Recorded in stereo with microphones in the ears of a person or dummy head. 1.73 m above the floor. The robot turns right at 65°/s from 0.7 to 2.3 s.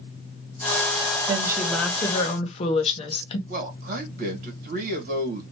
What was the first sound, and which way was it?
A woman speaking, 30° right.